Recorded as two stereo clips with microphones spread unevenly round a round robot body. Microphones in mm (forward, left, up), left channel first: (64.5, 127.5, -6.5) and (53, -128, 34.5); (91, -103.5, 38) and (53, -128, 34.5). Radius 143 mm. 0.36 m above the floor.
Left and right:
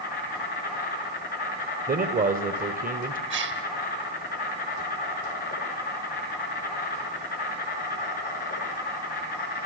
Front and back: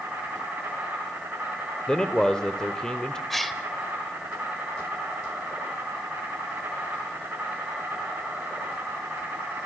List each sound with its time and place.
0.0 s an insect: 145° left, 6.5 m
1.9 s a man speaking: 40° right, 1.4 m
3.3 s a gasp: 55° right, 2 m